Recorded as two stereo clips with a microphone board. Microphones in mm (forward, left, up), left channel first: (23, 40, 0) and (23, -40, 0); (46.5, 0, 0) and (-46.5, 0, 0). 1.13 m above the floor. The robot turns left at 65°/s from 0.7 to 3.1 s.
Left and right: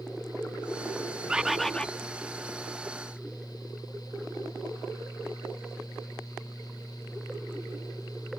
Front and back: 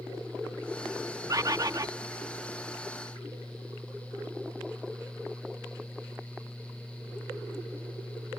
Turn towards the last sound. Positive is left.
turn(degrees=80)